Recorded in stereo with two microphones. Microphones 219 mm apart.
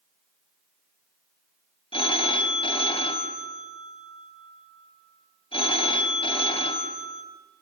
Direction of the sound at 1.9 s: 25° left (ahead or behind).